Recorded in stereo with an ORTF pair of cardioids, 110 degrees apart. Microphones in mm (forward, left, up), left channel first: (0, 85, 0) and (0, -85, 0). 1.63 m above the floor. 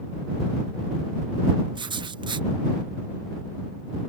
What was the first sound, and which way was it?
Writing, 30° right.